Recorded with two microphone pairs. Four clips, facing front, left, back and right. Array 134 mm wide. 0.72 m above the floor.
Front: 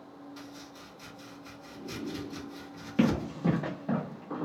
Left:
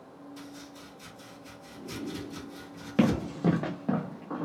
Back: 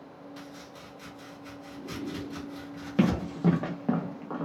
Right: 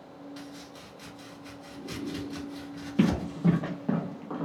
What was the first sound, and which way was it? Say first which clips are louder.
Chopping: right 1 dB, back 2 dB; 130° right.